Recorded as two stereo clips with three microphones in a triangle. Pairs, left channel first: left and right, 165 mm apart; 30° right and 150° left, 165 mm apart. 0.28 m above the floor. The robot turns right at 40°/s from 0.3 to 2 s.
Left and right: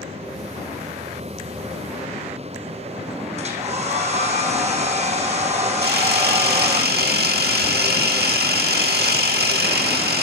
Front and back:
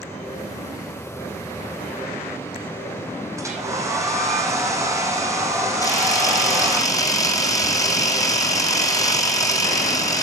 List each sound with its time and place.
3.4 s a hair dryer: 135° right, 2.5 m
5.8 s a camera shutter: 100° right, 2 m